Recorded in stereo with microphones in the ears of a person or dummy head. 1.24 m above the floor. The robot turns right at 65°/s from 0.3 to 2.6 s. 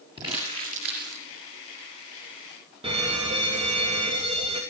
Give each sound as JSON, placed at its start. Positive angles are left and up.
{"t": 0.2, "sound": "crumpling", "azimuth_deg": -160, "distance_m": 6.5}
{"t": 2.8, "sound": "a fire alarm", "side_deg": -25, "distance_m": 3.0}